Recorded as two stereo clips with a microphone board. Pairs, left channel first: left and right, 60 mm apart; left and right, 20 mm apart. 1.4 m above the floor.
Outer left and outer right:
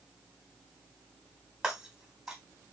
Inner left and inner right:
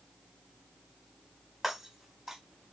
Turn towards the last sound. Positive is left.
turn(degrees=-15)  # may be behind; listen again after turning